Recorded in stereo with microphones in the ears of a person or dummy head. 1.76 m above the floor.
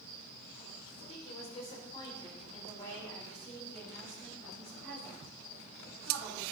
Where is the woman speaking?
45° left (ahead or behind), 3.5 m; by 6.4 s centre (ahead or behind), 5.5 m.